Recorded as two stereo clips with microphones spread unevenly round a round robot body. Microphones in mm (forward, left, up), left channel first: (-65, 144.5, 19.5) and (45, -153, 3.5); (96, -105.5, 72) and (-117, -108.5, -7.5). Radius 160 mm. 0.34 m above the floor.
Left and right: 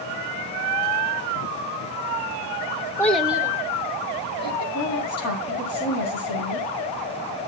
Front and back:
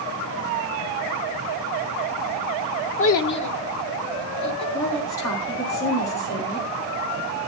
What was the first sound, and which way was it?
A child speaking, 30° left.